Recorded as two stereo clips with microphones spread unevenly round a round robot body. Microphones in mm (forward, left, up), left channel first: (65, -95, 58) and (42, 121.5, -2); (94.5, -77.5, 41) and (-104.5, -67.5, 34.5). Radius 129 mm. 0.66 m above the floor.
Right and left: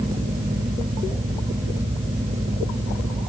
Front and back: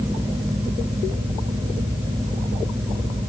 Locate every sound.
Only background noise.